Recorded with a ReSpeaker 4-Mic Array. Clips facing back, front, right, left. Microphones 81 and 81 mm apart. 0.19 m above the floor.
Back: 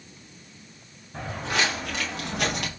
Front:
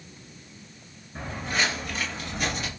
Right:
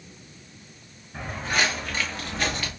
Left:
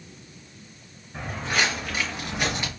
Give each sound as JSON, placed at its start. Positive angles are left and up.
{"t": 1.1, "sound": "footsteps", "azimuth_deg": 180, "distance_m": 3.0}